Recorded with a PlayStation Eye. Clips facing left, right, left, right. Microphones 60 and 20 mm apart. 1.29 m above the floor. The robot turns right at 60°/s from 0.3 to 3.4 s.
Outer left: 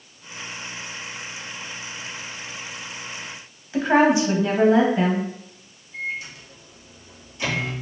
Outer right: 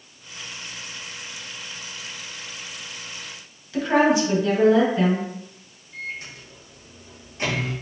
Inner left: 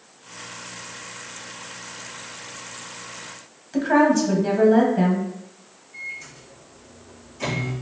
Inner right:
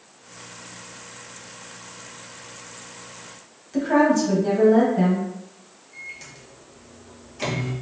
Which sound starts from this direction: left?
A woman speaking, at 3.7 s.